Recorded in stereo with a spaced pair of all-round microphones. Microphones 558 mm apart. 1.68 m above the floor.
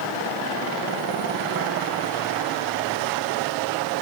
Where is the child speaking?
No child speaking in this recording.